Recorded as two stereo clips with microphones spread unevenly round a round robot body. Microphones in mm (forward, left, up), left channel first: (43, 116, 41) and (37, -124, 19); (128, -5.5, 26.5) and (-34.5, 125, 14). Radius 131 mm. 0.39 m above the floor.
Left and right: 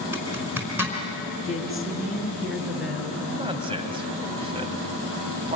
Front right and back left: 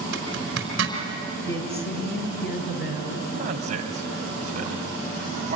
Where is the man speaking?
160° right, 2.5 m.